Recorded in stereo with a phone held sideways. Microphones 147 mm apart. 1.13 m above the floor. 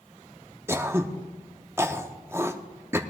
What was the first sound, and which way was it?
Throat clearing, 15° right (ahead or behind).